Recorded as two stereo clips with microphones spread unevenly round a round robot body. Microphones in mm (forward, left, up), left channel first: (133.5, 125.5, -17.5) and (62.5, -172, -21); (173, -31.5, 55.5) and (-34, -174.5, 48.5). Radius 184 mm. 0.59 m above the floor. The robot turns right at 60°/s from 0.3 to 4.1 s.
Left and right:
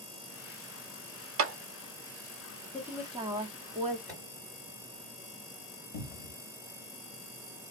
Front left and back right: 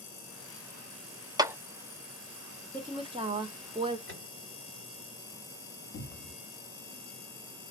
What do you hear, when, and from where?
1.4 s a clap: 75° right, 0.7 m; by 1.6 s 65° right, 0.7 m
2.7 s a woman speaking: straight behind, 0.7 m; by 4.0 s 110° right, 0.7 m
4.1 s a microwave: 175° left, 1.8 m
5.9 s a cupboard door: 85° left, 0.8 m